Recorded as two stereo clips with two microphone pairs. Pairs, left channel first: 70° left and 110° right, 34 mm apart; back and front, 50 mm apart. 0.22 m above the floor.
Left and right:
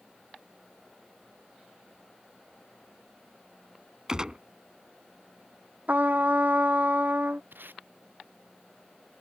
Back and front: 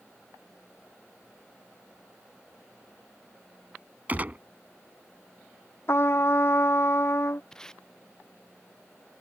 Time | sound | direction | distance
4.1 | a gunshot | 45° right | ?
5.9 | a trumpet | 145° right | ?
7.5 | tape being pulled | 100° right | ?